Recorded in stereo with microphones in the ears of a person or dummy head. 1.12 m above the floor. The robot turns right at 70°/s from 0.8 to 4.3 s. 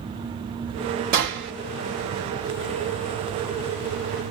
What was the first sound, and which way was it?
A gunshot, 50° right (ahead or behind).